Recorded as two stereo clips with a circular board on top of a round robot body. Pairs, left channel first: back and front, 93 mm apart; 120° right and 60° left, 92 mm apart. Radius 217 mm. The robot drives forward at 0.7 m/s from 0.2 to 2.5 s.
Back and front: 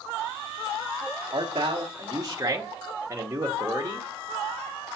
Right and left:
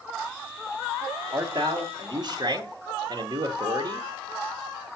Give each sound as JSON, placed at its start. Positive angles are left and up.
{"t": 1.3, "sound": "a man speaking", "azimuth_deg": 25, "distance_m": 1.8}